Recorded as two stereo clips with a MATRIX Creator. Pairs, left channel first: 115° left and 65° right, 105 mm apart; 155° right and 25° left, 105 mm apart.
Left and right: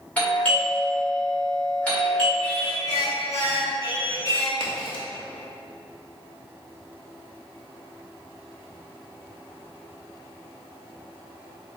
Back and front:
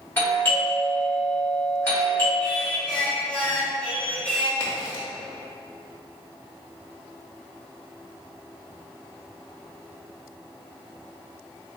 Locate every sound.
0.2 s a doorbell: 170° left, 1.4 m
2.4 s singing: 120° left, 1.9 m
4.6 s a crack: 155° left, 0.8 m